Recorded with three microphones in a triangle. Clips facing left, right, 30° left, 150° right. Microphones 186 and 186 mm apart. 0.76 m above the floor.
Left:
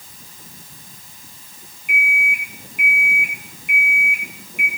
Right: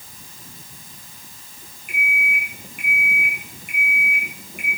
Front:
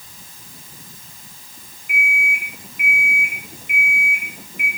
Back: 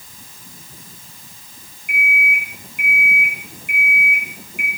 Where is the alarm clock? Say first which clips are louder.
Left 2 dB, back 2 dB; 135° right, 8 m.